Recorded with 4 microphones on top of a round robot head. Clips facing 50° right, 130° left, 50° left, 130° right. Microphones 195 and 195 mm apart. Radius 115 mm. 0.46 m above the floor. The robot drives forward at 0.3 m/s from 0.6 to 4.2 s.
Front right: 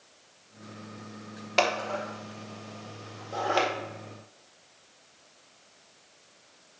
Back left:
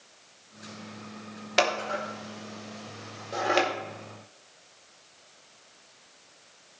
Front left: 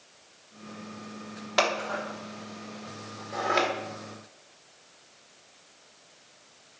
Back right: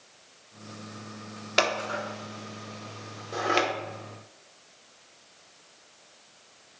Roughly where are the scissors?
Behind.